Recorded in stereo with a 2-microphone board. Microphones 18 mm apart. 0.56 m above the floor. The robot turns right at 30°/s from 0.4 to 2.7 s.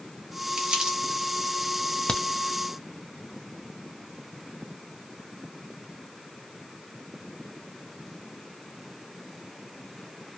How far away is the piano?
I don't hear a piano.